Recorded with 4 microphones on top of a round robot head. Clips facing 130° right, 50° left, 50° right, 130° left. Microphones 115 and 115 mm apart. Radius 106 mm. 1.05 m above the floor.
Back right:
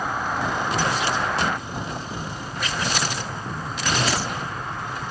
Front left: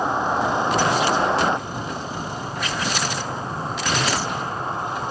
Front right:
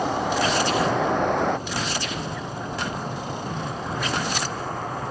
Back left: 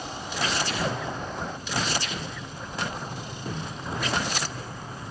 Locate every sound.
0.0 s a vehicle: 20° right; by 5.1 s 15° right